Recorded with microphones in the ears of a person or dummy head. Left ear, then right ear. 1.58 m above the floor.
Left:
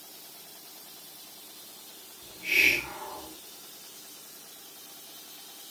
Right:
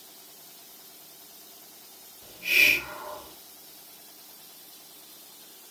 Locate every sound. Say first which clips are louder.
2.2 s a hiss: right 2 dB; 20° right (ahead or behind), 2 m